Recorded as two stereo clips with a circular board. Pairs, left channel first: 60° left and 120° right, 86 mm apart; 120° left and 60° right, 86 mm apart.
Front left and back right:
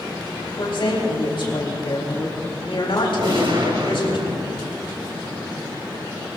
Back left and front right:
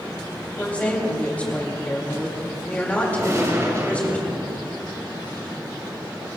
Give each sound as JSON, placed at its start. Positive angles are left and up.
{"t": 0.6, "sound": "a woman speaking", "azimuth_deg": 45, "distance_m": 3.5}
{"t": 3.2, "sound": "a gunshot", "azimuth_deg": -110, "distance_m": 3.0}